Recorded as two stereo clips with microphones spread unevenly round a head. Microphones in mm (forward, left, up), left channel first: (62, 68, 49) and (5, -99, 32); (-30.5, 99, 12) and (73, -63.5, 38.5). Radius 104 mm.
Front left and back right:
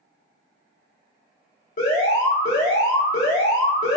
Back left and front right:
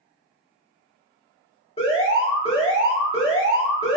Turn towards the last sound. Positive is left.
turn(degrees=75)